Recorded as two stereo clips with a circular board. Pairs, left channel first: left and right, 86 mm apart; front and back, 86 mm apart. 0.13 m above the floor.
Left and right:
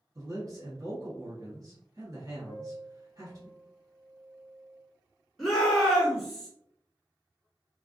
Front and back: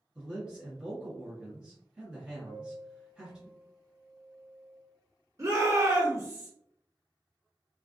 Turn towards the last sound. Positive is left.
turn(degrees=180)